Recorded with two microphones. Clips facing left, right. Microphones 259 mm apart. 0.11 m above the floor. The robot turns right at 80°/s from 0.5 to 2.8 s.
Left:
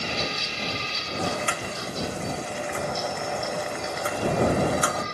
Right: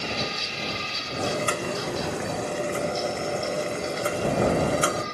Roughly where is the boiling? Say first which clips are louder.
Right 3 dB; behind.